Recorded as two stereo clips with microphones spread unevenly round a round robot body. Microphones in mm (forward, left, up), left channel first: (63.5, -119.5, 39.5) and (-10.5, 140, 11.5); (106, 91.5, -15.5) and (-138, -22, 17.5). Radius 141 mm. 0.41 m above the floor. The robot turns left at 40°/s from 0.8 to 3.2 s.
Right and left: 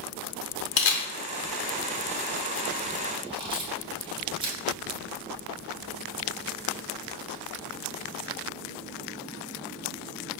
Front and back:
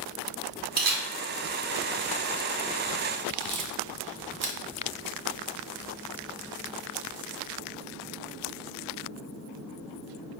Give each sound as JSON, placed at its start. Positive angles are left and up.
{"t": 0.8, "sound": "a camera shutter", "azimuth_deg": -100, "distance_m": 0.6}